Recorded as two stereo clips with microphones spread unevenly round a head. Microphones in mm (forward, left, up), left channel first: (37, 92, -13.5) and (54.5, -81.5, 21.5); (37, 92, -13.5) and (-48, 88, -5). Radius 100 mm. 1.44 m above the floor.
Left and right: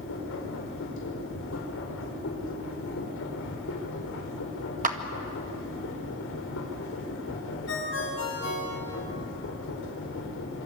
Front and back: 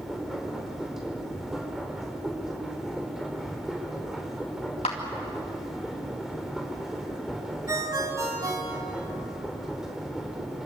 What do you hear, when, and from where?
0.0 s a machine running: 100° left, 4.5 m
4.8 s a clap: 45° right, 2.0 m
7.7 s a ringtone: 130° left, 6 m